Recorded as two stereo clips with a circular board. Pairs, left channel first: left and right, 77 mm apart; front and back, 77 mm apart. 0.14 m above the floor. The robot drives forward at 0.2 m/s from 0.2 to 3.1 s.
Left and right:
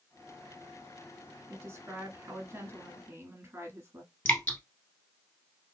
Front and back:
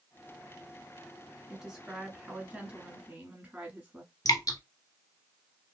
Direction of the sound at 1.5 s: 100° right.